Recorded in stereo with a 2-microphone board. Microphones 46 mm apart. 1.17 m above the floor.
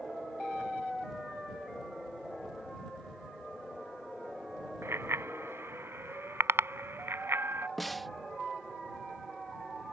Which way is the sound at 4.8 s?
75° right (ahead or behind).